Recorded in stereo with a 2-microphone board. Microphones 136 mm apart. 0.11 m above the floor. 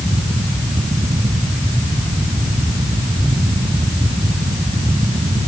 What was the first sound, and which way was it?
Only background noise.